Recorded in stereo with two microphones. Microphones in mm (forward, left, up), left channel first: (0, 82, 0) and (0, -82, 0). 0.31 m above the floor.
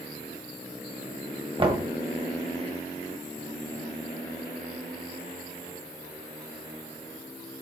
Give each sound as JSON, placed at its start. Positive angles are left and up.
{"t": 1.6, "sound": "knocking", "side_deg": -35, "distance_m": 1.4}